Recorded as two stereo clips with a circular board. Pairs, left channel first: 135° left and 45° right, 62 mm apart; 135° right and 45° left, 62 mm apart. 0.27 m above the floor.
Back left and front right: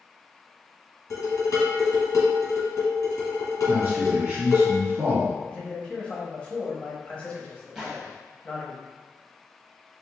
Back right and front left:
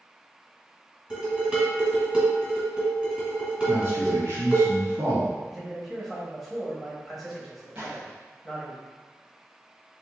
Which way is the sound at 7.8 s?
30° left.